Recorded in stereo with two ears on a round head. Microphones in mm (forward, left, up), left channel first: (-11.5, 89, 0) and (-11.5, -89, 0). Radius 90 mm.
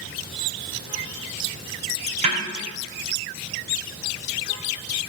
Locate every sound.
2.2 s a snare drum: 40° right (ahead or behind), 4.5 m